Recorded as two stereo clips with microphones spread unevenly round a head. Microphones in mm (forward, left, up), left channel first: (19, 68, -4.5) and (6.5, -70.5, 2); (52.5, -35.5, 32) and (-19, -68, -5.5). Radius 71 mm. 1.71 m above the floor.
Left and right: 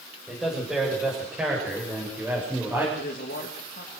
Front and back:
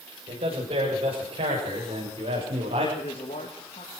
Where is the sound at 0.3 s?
175° left, 7.5 m; by 2.9 s 170° right, 6.5 m.